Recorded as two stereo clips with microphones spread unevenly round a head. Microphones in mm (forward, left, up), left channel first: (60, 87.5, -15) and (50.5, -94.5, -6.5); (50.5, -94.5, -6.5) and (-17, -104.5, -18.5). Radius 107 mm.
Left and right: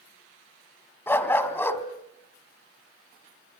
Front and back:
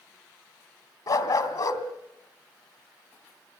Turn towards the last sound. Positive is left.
turn(degrees=10)